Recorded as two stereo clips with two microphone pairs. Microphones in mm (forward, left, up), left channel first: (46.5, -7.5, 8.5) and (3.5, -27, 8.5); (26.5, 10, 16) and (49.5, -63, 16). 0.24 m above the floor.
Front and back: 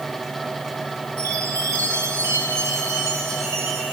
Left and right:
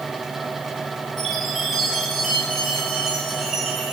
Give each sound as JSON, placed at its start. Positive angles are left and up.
{"t": 1.2, "sound": "a chime", "azimuth_deg": -160, "distance_m": 7.5}